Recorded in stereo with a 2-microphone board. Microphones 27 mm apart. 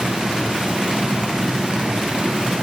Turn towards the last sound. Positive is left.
No sound to turn to.